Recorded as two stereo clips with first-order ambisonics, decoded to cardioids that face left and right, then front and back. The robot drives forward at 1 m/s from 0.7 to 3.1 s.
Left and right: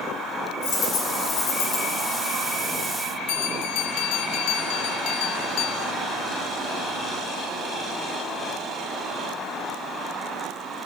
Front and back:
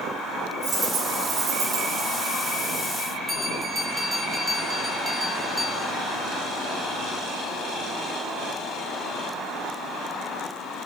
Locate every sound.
0.6 s a dropped coin: 110° left, 4 m; by 1.9 s 125° left, 4.5 m
3.3 s a bell: 95° left, 1.3 m